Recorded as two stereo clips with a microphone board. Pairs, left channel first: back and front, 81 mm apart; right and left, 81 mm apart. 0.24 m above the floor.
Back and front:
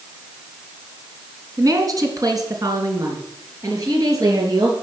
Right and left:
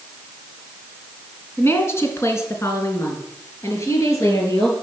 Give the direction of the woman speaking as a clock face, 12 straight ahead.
1 o'clock.